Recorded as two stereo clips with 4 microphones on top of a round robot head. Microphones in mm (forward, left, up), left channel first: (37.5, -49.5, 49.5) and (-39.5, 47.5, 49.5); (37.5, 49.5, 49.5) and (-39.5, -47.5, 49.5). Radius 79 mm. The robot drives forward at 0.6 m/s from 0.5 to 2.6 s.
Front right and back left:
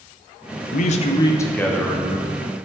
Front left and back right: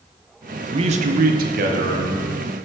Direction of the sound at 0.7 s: 75° right.